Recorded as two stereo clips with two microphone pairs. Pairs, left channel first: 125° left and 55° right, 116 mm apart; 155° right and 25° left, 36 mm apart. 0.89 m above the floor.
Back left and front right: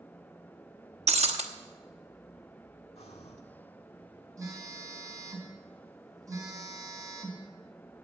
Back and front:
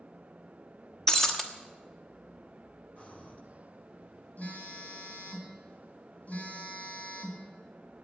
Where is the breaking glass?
80° right, 1.0 m.